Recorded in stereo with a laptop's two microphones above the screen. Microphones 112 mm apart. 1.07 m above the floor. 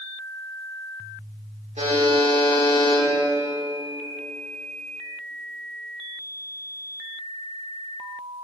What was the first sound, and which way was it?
A buzzer, 75° right (ahead or behind).